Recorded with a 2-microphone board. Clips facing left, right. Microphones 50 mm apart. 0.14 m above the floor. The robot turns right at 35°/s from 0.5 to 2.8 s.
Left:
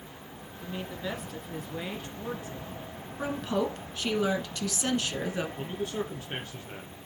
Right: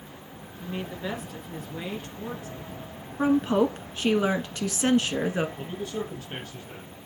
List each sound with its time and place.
0.6 s a woman speaking: 30° right, 1.9 m; by 3.1 s 45° left, 1.9 m
3.2 s a woman speaking: 30° right (ahead or behind), 1.2 m
5.6 s a man speaking: 20° left (ahead or behind), 1.8 m